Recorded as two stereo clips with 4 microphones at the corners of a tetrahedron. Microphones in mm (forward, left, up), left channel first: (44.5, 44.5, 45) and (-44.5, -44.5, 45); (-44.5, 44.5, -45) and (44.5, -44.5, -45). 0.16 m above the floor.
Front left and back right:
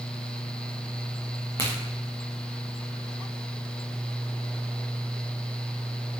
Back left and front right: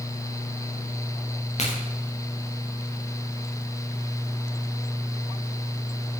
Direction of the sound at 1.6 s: 105° left.